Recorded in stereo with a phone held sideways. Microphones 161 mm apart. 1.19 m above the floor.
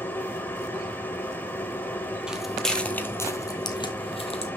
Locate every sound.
0.0 s a machine running: 10° left (ahead or behind), 1.3 m
2.3 s footsteps: 5° right (ahead or behind), 1.5 m; by 4.5 s 40° left (ahead or behind), 1.7 m